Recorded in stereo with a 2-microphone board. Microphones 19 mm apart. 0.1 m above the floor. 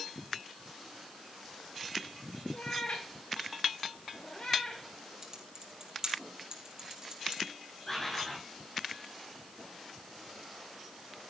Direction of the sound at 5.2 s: 40° right (ahead or behind).